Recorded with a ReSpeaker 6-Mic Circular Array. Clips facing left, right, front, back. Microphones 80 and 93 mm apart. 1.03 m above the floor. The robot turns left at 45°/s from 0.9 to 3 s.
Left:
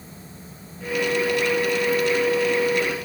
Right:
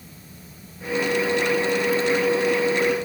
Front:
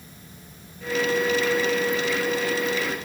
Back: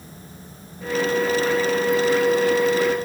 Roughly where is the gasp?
I don't hear a gasp.